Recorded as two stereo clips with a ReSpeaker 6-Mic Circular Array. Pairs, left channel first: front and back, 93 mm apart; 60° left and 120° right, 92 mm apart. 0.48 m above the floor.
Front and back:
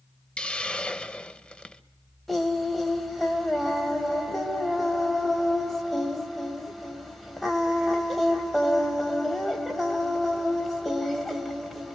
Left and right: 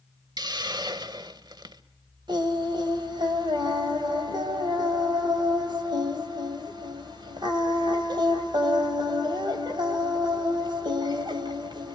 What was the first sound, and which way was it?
A hiss, 80° right.